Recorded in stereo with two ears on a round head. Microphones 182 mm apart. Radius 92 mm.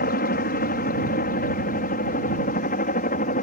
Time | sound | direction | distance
0.0 | a helicopter | 50° left (ahead or behind) | ?